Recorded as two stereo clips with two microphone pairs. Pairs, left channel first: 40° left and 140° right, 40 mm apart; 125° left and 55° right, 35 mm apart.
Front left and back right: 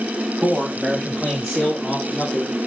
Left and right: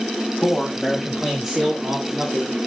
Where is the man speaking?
170° left, 1.5 m; by 2.7 s 20° right, 1.9 m.